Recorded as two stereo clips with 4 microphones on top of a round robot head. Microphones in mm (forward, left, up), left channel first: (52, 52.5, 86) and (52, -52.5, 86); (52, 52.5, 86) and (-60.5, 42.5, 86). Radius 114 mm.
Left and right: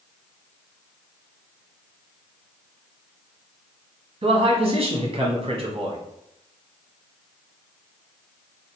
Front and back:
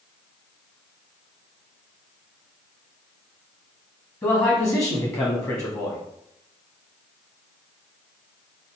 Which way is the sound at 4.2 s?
60° right.